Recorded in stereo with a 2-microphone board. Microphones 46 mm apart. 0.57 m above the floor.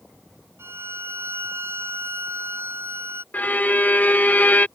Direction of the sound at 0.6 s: 60° right (ahead or behind).